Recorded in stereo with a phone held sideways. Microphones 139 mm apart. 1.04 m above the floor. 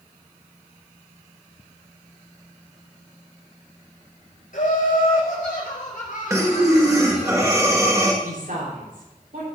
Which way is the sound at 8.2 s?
80° right.